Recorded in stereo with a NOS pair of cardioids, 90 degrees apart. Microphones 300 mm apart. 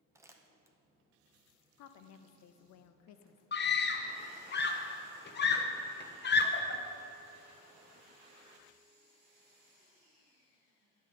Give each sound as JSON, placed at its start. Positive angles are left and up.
{"t": 0.1, "sound": "crumpling", "azimuth_deg": -10, "distance_m": 0.6}
{"t": 1.8, "sound": "a woman speaking", "azimuth_deg": 65, "distance_m": 0.5}
{"t": 3.5, "sound": "a scream", "azimuth_deg": 35, "distance_m": 0.8}